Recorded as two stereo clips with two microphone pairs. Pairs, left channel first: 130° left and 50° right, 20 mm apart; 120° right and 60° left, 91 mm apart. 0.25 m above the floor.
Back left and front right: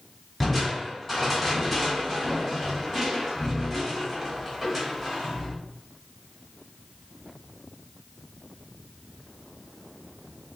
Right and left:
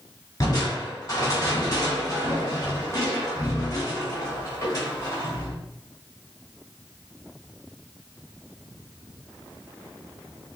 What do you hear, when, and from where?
0.4 s crushing: 160° right, 2.5 m